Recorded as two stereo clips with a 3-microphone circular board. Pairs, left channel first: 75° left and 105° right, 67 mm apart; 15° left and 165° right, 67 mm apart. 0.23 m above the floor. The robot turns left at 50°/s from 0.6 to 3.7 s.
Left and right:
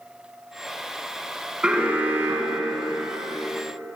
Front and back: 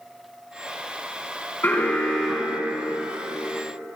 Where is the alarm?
30° right, 2.5 m; by 3.4 s 120° right, 2.5 m.